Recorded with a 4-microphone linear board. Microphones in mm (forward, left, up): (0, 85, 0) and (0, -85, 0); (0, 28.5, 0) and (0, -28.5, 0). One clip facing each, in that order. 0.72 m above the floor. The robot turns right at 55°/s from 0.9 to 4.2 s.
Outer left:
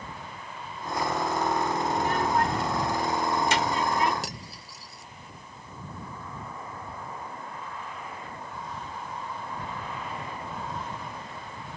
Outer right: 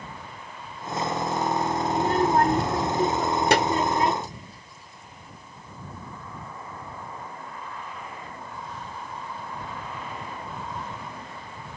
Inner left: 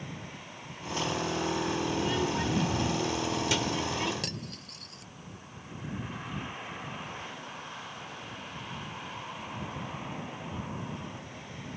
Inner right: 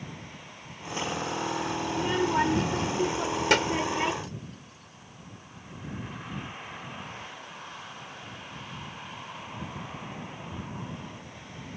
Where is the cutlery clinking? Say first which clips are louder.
Outer left 1 dB, inner left 2 dB; 90° left.